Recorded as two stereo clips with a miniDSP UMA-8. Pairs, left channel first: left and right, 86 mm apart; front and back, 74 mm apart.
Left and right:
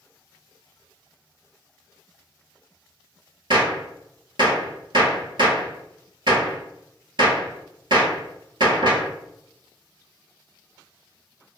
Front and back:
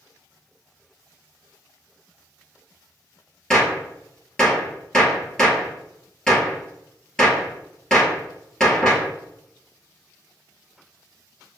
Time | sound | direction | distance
3.5 | a gunshot | 85° right | 1.2 m